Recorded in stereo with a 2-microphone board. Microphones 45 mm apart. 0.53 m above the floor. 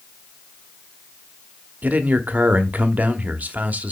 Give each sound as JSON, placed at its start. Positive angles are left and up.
{"t": 1.8, "sound": "a man speaking", "side_deg": -35, "distance_m": 1.0}